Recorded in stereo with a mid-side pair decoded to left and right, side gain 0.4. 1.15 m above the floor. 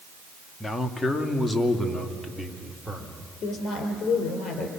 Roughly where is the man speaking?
Ahead left.